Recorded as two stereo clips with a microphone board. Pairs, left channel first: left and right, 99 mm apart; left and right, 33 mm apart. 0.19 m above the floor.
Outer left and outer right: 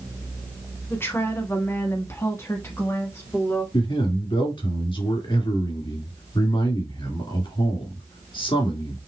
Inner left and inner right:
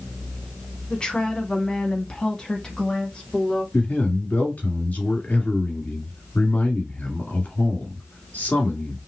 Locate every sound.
0.9 s a woman speaking: 25° left (ahead or behind), 1.4 m
3.7 s a man speaking: 60° left (ahead or behind), 2.5 m